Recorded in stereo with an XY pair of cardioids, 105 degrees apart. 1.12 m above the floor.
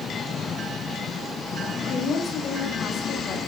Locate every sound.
1.7 s a woman speaking: 60° left, 10 m